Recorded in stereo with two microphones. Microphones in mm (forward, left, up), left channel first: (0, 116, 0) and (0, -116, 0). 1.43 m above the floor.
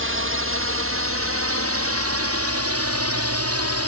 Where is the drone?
55° right (ahead or behind); by 3.9 s 70° right (ahead or behind).